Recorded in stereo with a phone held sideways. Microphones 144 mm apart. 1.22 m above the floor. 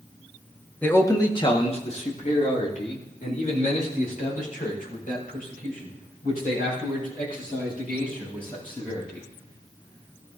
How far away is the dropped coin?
I don't hear a dropped coin.